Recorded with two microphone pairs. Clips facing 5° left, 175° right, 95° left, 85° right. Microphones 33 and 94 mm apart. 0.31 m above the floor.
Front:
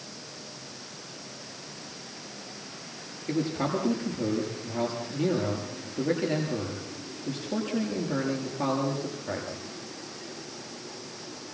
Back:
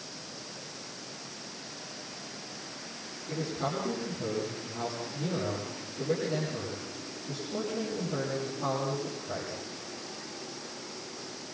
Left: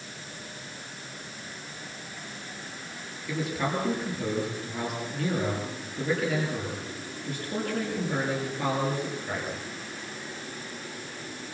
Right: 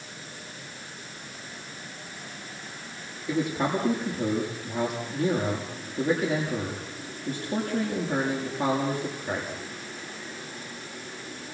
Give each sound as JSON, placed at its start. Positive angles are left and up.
{"t": 3.3, "sound": "a man speaking", "azimuth_deg": -25, "distance_m": 7.5}